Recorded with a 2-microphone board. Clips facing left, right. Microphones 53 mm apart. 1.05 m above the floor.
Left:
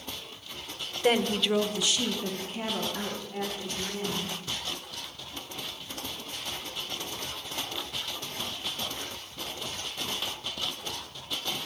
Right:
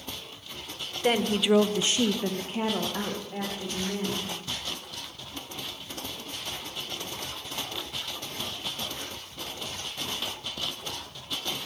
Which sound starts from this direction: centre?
A woman speaking, at 1.0 s.